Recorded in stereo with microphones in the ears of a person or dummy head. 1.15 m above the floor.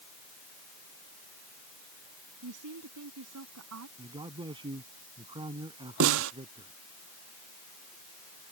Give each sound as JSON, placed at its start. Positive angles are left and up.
{"t": 2.4, "sound": "a woman speaking", "side_deg": -65}
{"t": 4.0, "sound": "a man speaking", "side_deg": -15}
{"t": 6.0, "sound": "a snare drum", "side_deg": -55}